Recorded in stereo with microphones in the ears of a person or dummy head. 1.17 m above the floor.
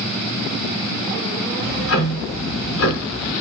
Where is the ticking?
65° left (ahead or behind), 1.6 m.